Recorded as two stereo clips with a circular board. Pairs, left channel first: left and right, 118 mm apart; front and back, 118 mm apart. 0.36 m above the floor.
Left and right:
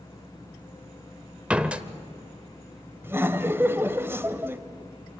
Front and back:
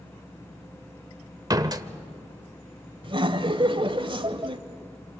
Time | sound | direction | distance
1.5 | a door slam | 160° right | 0.9 m
3.0 | laughter | 155° right | 1.4 m